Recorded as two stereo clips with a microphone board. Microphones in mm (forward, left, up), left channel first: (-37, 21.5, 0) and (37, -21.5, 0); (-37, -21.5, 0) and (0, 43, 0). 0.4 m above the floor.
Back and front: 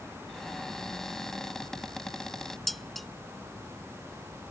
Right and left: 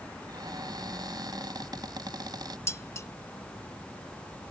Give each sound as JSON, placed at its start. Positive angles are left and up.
{"t": 0.3, "sound": "a cupboard door", "azimuth_deg": 65}
{"t": 2.7, "sound": "dishes clattering", "azimuth_deg": -125}